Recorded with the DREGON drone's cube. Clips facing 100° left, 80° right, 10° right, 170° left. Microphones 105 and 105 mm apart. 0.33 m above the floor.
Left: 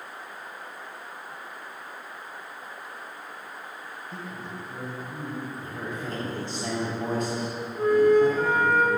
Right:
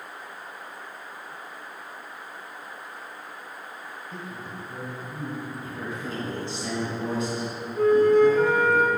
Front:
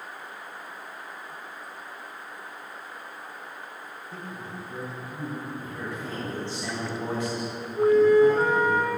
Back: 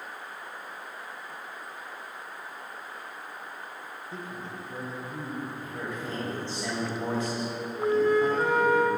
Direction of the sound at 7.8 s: 60° right.